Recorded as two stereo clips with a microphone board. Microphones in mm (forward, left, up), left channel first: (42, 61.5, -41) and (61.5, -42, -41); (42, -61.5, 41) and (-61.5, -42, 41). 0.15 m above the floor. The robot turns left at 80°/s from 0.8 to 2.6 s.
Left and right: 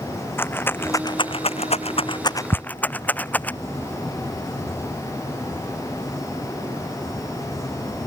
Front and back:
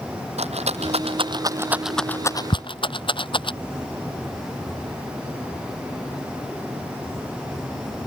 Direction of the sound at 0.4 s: 170° left.